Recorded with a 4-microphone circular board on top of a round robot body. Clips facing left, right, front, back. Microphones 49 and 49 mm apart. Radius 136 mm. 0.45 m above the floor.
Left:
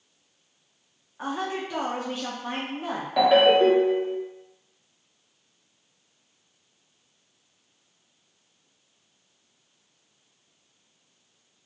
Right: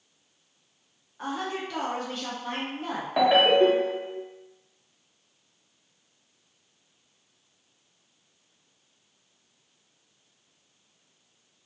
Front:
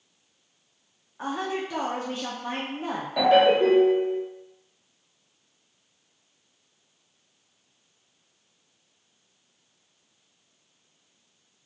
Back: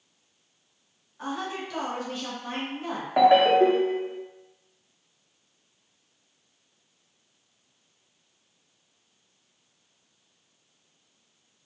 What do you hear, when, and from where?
1.2 s a woman speaking: 35° left, 0.7 m
3.2 s a ringtone: 155° right, 0.9 m